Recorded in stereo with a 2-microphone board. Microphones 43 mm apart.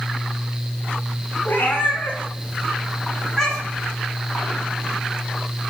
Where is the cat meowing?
55° left (ahead or behind), 0.7 m; by 3.9 s centre (ahead or behind), 1.2 m.